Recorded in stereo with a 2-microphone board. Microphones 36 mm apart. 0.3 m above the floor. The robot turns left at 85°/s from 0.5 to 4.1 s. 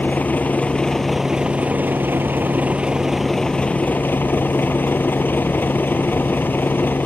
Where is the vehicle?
50° left; by 7.0 s 105° left.